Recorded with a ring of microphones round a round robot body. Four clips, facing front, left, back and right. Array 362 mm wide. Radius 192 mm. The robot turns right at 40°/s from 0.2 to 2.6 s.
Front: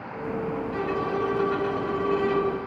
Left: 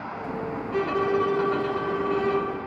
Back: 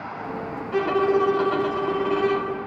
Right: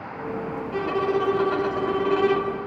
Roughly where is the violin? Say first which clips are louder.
Even, back 10 dB; behind.